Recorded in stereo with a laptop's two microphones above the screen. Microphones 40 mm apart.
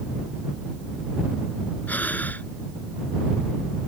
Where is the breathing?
45° left (ahead or behind).